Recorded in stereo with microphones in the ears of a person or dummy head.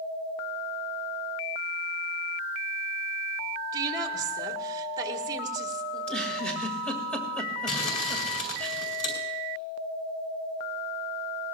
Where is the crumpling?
40° left (ahead or behind), 3 m.